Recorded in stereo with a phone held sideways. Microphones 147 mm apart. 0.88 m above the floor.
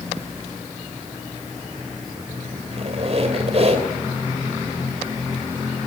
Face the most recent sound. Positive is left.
turn(degrees=-50)  # may be behind; listen again after turning